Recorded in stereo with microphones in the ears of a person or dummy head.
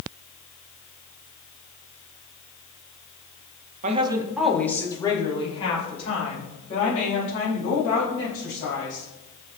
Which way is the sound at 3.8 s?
40° right (ahead or behind).